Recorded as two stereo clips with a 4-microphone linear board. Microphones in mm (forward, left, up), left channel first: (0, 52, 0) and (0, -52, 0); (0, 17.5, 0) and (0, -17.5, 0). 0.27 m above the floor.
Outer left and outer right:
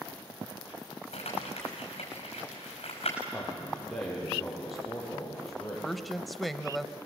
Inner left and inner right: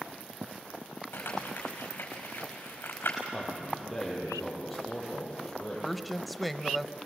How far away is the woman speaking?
About 0.9 m.